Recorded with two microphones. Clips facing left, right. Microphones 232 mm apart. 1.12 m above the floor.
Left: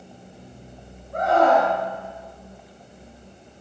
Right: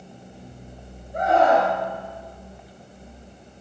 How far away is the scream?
About 9.5 m.